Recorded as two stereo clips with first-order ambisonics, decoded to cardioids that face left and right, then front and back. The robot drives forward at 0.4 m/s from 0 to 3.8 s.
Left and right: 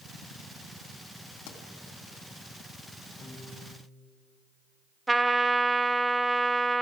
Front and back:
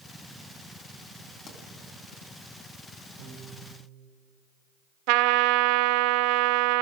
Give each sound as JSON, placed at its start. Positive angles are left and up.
{"t": 1.5, "sound": "a pop", "azimuth_deg": 65, "distance_m": 3.0}
{"t": 3.2, "sound": "a piano", "azimuth_deg": 160, "distance_m": 3.5}
{"t": 5.1, "sound": "a trumpet", "azimuth_deg": -170, "distance_m": 0.8}